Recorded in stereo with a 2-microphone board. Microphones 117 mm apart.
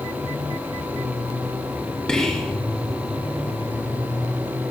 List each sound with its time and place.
2.1 s whispering: 5° left (ahead or behind), 1.8 m